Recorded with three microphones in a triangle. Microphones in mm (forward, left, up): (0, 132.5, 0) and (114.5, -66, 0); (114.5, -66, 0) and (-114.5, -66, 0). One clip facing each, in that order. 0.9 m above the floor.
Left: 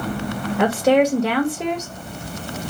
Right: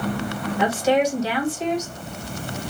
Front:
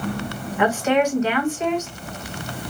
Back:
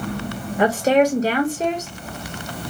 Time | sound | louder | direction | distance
0.6 | a woman speaking | left 4 dB, back 3 dB | 135° left | 0.9 m